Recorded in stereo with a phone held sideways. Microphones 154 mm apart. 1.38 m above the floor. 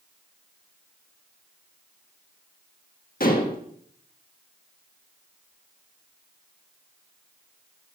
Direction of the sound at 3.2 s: 70° left (ahead or behind).